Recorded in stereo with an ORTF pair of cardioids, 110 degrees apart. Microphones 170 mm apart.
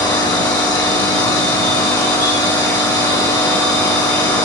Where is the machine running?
25° left, 1.2 m.